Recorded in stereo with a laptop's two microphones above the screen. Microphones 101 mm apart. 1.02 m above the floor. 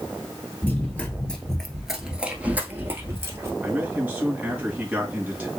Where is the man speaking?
15° right (ahead or behind), 2 m.